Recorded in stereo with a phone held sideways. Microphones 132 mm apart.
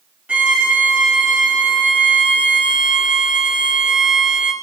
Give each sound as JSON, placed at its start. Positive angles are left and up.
{"t": 0.3, "sound": "a violin", "side_deg": -10, "distance_m": 1.3}